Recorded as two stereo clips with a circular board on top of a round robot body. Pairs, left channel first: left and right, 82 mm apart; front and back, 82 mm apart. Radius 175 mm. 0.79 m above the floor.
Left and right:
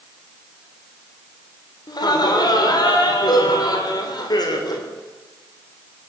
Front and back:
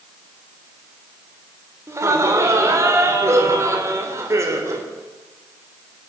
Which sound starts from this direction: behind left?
Laughter, at 1.9 s.